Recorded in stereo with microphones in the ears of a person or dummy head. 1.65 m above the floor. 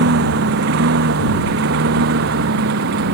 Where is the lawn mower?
70° right (ahead or behind); by 3.1 s 65° right (ahead or behind).